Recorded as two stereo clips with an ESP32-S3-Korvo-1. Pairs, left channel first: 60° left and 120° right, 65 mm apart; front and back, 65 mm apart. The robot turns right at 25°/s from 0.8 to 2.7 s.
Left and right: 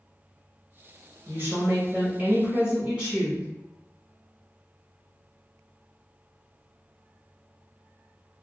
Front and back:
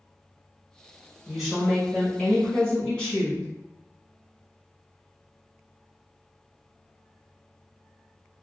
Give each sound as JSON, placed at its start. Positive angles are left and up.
{"t": 1.3, "sound": "a woman speaking", "azimuth_deg": -95, "distance_m": 1.3}